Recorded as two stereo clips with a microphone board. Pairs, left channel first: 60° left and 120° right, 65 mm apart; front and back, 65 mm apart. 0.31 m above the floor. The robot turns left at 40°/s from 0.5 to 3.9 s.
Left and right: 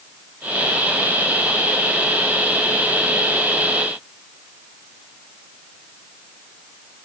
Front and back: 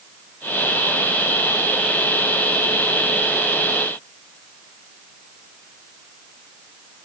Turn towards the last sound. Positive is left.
No sound to turn to.